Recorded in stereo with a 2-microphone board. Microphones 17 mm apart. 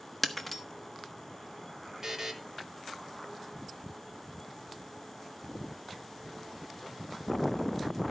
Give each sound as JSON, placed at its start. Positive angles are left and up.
{"t": 0.2, "sound": "breaking glass", "side_deg": 5, "distance_m": 1.0}
{"t": 2.0, "sound": "a buzzer", "side_deg": -30, "distance_m": 1.4}